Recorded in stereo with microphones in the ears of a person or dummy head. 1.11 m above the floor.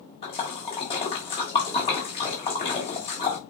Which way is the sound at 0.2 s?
25° left (ahead or behind).